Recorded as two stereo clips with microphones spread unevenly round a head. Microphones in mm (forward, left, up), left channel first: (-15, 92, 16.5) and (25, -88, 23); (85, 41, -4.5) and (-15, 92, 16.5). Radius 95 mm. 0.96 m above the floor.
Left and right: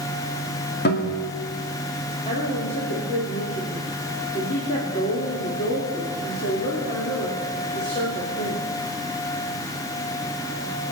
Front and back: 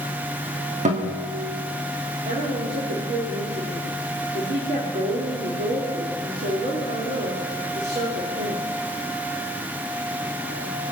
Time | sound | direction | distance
0.8 | a guitar | 140° left | 2.5 m
2.2 | a woman speaking | 160° left | 2.5 m